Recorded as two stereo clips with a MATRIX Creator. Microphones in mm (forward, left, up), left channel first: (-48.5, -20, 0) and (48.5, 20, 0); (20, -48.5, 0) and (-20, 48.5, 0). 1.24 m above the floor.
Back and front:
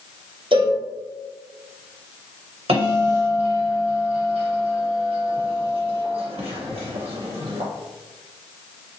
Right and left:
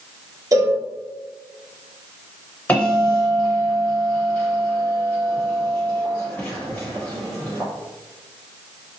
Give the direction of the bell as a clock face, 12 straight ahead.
12 o'clock.